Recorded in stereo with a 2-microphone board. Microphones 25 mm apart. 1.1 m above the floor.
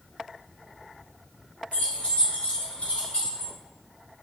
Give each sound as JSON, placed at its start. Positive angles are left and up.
{"t": 1.7, "sound": "keys jangling", "side_deg": 80, "distance_m": 1.7}